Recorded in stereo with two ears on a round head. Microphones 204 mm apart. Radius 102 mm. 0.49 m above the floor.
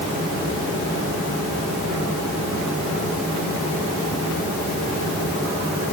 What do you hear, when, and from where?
Only background noise.